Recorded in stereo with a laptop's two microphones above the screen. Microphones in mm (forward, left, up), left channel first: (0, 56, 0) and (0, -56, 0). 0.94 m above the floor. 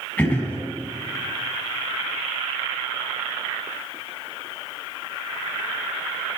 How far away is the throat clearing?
About 5.5 m.